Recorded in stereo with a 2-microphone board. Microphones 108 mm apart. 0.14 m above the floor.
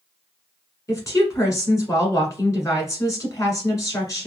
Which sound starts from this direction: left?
A woman speaking, at 0.9 s.